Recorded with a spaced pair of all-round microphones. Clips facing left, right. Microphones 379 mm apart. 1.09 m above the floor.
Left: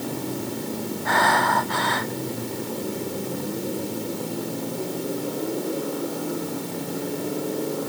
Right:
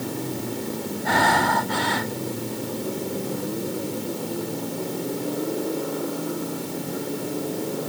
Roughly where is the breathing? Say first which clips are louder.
Right 2 dB; right.